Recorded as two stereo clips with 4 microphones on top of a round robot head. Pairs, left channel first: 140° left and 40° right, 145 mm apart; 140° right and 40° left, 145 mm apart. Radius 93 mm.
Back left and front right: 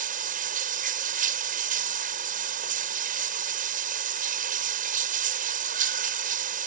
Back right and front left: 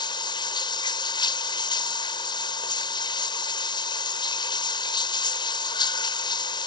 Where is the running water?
80° right.